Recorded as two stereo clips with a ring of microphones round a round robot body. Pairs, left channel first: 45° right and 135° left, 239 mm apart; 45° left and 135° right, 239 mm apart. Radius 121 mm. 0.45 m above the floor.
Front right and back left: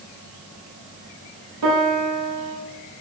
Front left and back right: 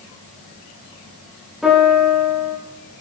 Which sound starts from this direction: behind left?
A piano, at 1.6 s.